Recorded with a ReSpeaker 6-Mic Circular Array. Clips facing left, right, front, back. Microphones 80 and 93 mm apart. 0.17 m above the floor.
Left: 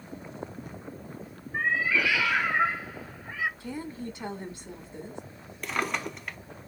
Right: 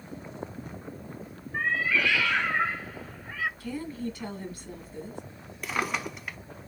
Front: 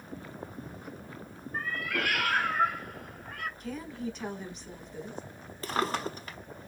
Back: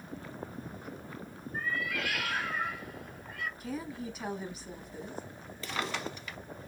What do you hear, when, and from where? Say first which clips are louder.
1.5 s a cat meowing: left 1 dB, front 2 dB; 10° left, 0.5 m
3.6 s a woman speaking: right 2 dB, front 2 dB; 105° left, 1.1 m
5.6 s a drawer: even, front 5 dB; 5° right, 0.6 m